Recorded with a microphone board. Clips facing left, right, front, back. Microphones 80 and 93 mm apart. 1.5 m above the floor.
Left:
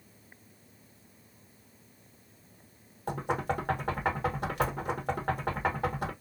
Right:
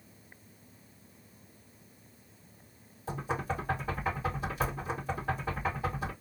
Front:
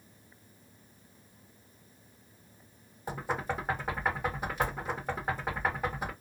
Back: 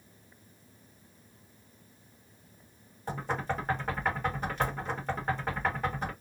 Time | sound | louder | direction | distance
3.1 | knocking | left 3 dB, back 1 dB | 80° left | 1.2 m